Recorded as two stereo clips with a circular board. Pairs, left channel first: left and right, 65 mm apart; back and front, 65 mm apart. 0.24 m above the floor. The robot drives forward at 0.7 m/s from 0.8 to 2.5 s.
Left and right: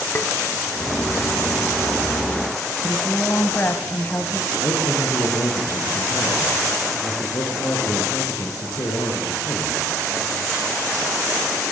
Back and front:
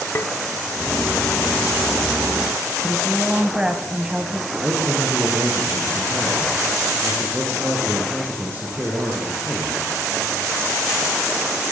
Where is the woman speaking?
60° left, 1.6 m.